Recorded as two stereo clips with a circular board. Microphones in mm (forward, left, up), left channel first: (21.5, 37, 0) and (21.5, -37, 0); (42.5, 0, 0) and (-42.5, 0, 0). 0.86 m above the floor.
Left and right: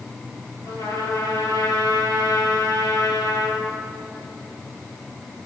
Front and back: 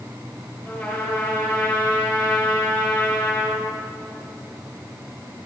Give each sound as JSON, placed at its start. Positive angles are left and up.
{"t": 0.6, "sound": "a trumpet", "azimuth_deg": 65, "distance_m": 2.5}